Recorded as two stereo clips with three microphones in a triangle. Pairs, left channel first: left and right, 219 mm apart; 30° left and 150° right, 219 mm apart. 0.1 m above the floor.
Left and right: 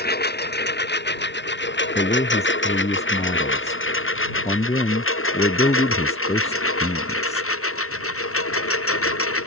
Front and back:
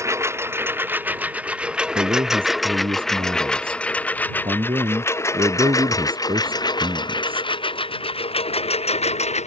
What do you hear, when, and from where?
0.0 s a lawn mower: 135° left; by 9.5 s 90° left
1.9 s a man speaking: 150° left